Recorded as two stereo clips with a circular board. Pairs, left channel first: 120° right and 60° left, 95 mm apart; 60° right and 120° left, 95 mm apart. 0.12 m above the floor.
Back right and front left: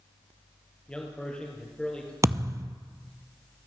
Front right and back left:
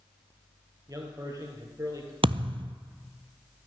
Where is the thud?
115° left, 0.6 m.